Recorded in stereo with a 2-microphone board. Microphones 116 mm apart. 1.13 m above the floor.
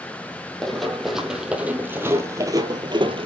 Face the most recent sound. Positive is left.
turn(degrees=-50)  # may be behind; listen again after turning